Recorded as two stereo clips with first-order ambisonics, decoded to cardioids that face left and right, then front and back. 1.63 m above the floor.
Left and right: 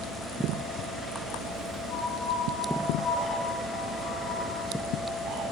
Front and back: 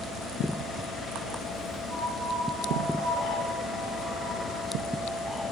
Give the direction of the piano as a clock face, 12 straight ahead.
8 o'clock.